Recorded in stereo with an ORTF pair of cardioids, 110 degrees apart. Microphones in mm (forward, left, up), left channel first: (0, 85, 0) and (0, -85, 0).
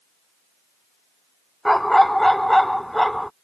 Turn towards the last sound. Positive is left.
turn(degrees=0)